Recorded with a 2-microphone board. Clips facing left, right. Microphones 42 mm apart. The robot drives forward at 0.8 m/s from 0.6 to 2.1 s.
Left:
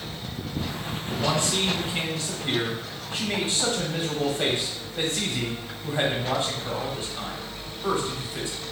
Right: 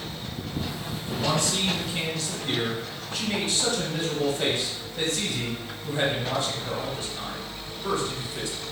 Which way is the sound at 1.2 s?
30° left (ahead or behind).